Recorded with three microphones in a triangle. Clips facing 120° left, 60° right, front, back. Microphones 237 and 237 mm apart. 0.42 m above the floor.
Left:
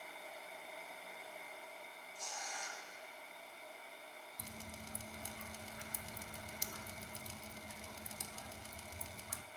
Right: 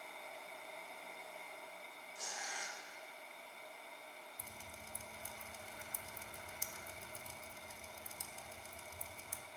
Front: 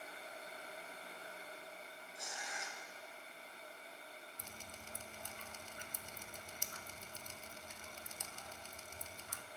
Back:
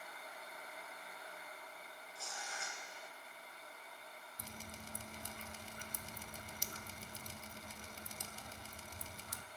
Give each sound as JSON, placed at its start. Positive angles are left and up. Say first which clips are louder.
{"t": 2.1, "sound": "tearing paper", "louder": "even, front 1 dB", "azimuth_deg": -75, "distance_m": 1.8}
{"t": 4.4, "sound": "dripping", "louder": "left 5 dB, back 3 dB", "azimuth_deg": 125, "distance_m": 0.5}